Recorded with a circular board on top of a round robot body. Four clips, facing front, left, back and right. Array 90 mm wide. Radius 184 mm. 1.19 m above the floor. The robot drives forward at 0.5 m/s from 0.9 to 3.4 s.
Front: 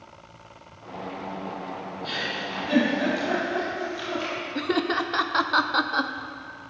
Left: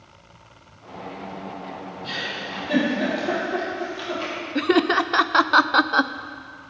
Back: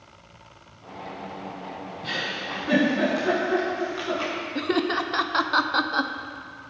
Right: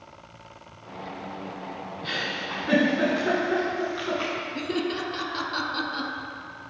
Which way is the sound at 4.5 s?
90° left.